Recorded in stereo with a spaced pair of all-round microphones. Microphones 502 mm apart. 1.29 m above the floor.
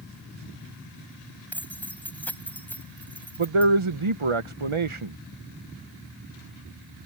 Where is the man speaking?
90° right.